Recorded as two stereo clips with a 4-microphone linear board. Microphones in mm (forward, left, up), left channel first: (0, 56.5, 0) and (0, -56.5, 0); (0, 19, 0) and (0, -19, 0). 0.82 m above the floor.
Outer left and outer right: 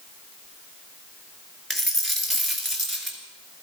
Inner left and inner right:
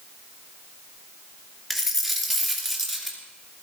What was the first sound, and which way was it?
A dropped coin, centre (ahead or behind).